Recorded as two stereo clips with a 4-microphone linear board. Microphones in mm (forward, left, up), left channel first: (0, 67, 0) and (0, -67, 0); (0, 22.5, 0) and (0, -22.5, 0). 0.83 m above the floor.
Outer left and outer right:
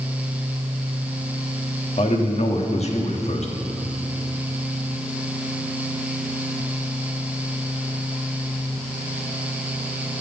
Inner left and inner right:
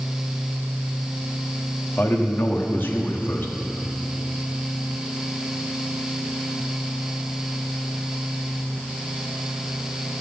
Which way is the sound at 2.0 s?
55° left (ahead or behind).